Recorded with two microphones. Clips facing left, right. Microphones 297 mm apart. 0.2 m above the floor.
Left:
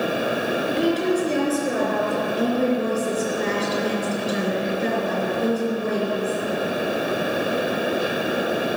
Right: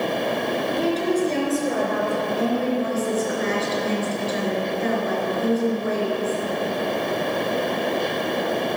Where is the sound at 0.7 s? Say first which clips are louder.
Left 2 dB; 20° left (ahead or behind), 2.5 m; by 2.2 s 5° left (ahead or behind), 4 m.